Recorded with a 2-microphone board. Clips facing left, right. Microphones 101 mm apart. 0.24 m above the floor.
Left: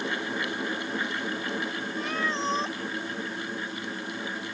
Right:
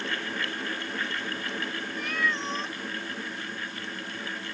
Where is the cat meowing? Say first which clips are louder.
Left 1 dB; 30° left (ahead or behind).